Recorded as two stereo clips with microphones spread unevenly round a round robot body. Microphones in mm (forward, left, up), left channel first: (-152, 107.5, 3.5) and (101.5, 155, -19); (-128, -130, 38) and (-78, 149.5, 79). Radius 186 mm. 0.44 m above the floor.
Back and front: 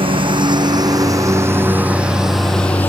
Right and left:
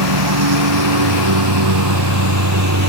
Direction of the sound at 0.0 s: 80° left.